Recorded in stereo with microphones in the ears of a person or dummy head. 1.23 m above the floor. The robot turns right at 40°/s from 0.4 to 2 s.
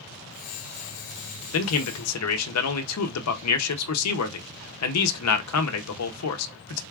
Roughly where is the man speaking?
Left.